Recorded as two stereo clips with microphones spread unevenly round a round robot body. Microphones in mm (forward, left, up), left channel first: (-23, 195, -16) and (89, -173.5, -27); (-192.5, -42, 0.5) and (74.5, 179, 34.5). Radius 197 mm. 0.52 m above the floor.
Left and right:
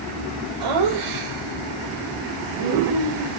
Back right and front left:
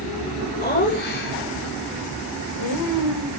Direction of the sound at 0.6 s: 65° right.